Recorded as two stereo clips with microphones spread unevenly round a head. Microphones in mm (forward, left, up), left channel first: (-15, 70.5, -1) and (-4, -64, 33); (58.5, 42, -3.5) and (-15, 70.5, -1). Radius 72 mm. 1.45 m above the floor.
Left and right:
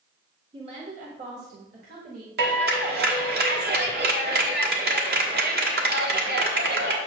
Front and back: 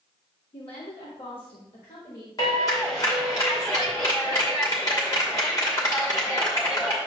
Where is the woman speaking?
30° right, 1.2 m; by 2.3 s 60° right, 2.0 m.